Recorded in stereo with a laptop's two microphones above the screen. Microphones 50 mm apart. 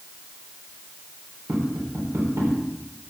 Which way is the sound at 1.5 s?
65° right (ahead or behind).